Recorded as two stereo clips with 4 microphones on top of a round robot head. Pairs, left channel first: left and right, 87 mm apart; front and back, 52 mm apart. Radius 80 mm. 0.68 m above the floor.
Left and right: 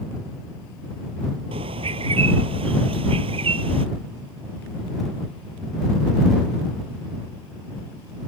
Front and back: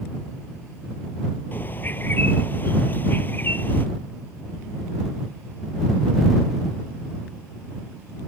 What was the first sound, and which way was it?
A bird, 65° right.